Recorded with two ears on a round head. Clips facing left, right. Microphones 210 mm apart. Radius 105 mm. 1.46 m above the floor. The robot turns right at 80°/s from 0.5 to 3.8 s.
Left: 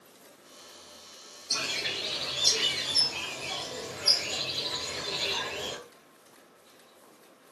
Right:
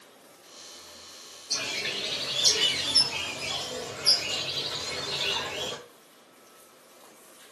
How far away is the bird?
About 1.0 m.